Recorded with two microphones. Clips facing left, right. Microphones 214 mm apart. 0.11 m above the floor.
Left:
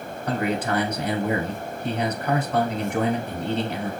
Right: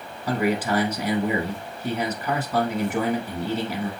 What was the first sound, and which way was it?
A man speaking, 5° right (ahead or behind).